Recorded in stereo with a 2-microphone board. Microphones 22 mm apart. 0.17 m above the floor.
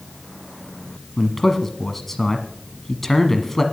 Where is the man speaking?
15° left (ahead or behind), 1.1 m.